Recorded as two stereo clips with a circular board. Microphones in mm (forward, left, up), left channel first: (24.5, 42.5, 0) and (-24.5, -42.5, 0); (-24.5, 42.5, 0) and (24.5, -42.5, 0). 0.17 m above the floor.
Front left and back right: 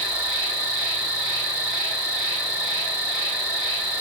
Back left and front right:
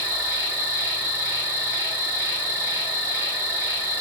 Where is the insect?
50° right, 2 m.